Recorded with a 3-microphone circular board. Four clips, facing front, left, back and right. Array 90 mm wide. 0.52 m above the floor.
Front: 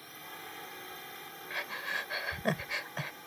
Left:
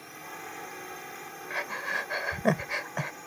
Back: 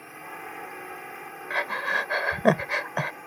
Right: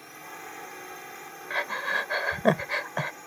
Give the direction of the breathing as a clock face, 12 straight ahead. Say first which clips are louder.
Right 4 dB, back 11 dB; 5 o'clock.